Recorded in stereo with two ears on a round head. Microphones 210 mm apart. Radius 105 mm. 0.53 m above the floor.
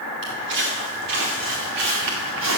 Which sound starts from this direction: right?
Footsteps, at 0.2 s.